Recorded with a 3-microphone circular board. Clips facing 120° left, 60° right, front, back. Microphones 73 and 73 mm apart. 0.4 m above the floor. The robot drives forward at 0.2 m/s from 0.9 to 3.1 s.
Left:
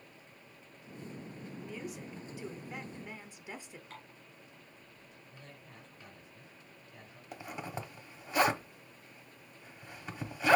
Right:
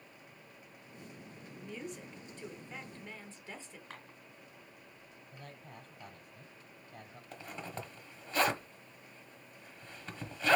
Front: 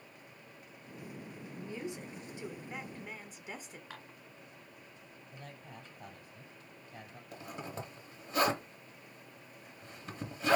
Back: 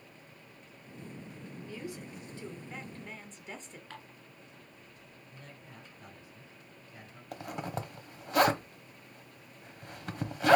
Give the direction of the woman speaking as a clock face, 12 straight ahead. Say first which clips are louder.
Even, front 1 dB; 11 o'clock.